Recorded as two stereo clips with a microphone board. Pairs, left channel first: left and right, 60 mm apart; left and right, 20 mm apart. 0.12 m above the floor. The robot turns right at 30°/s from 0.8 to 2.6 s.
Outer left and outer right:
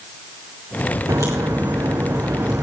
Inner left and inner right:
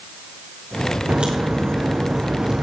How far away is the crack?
About 3 m.